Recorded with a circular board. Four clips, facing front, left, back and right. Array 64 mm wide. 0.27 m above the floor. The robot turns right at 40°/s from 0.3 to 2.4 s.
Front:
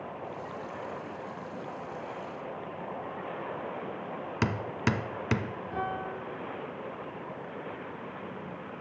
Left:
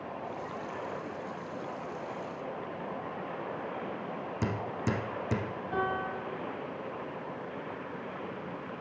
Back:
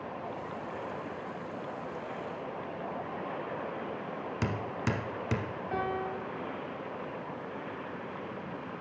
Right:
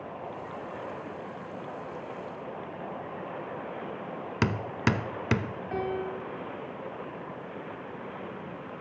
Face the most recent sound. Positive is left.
turn(degrees=-135)